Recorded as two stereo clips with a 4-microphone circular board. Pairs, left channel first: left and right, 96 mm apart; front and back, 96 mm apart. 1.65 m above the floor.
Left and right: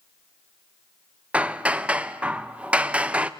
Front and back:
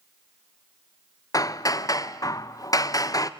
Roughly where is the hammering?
Ahead.